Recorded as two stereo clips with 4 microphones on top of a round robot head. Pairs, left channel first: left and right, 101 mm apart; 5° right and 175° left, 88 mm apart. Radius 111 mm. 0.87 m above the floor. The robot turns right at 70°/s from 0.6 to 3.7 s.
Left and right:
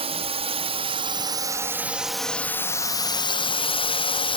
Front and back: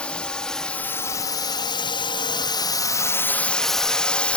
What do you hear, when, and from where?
0.0 s a drone: 80° right; by 4.4 s 70° left